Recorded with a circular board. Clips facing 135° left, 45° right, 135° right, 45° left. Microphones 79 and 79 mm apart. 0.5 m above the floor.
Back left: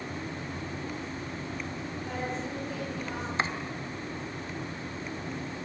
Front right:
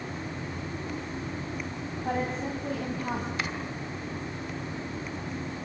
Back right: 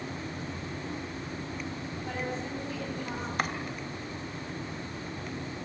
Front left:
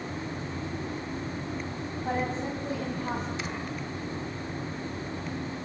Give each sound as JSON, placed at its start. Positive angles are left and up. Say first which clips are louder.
{"t": 2.0, "sound": "a woman speaking", "louder": "front right 6 dB, front left 5 dB", "azimuth_deg": -10, "distance_m": 4.0}
{"t": 3.4, "sound": "chopping", "louder": "back left 3 dB, back right 4 dB", "azimuth_deg": -170, "distance_m": 2.0}